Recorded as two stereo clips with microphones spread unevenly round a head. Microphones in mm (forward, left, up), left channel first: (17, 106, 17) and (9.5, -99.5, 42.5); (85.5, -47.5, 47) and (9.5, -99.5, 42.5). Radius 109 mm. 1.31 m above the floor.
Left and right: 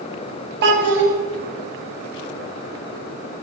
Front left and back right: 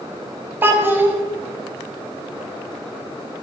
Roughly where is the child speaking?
Right.